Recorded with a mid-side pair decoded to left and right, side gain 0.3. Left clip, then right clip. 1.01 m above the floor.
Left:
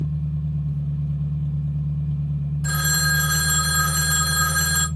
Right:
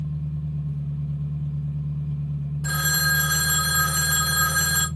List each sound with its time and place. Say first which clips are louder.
0.0 s an engine running: left 3 dB; 35° left, 1.1 m
2.6 s a phone ringing: even; 15° left, 0.7 m